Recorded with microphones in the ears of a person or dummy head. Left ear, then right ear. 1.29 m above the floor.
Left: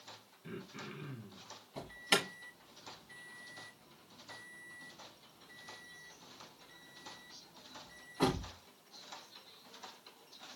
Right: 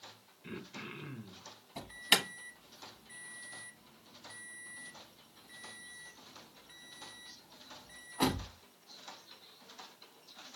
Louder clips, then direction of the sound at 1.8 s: Right 3 dB; 15° right (ahead or behind).